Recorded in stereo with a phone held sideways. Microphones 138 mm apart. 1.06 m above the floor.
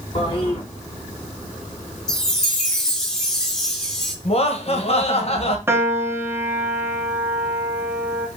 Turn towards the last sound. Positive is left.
turn(degrees=-15)  # may be behind; listen again after turning